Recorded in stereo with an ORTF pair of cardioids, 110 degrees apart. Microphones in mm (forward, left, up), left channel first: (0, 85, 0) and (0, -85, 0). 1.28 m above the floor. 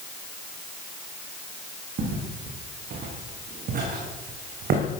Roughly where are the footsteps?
Ahead right.